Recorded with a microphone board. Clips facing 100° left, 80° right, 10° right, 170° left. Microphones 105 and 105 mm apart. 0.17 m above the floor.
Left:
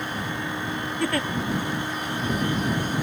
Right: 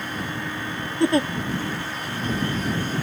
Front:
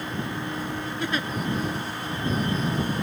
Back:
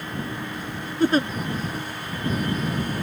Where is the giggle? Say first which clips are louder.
Right 7 dB, back 11 dB; 145° right.